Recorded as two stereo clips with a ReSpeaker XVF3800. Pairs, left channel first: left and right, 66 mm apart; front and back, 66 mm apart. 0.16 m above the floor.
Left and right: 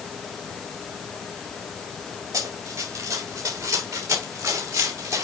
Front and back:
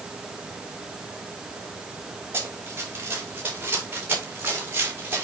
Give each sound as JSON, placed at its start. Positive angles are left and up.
{"t": 2.3, "sound": "running footsteps", "azimuth_deg": -125, "distance_m": 8.5}